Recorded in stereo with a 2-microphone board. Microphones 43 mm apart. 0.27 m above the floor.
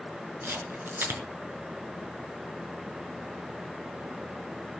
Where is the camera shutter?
70° right (ahead or behind), 4 m.